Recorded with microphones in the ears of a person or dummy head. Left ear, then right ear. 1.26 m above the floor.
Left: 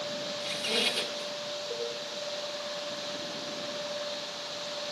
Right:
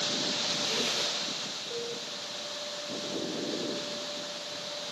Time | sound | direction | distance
0.4 | a squeak | 70° left (ahead or behind) | 1.8 m
1.7 | a cowbell | 65° left (ahead or behind) | 9 m